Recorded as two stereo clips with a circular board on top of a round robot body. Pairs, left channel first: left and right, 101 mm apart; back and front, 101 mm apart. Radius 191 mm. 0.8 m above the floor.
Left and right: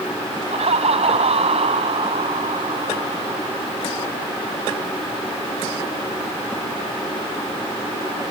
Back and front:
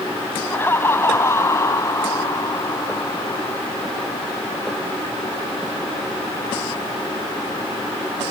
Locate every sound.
0.5 s laughter: 110° right; by 3.6 s 125° right